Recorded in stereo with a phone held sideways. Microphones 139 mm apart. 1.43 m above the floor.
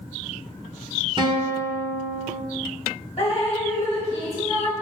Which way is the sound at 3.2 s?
40° left (ahead or behind).